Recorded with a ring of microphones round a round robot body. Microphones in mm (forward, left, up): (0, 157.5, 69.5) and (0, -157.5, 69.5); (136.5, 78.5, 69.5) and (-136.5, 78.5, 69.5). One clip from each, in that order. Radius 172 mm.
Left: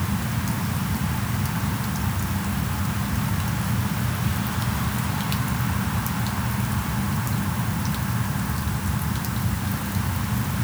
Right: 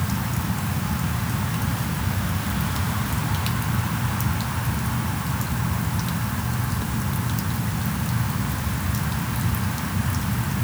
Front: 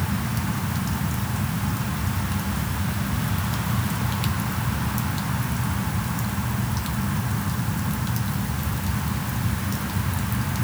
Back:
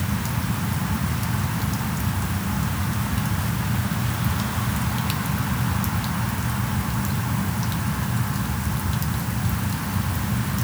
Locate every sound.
Only background noise.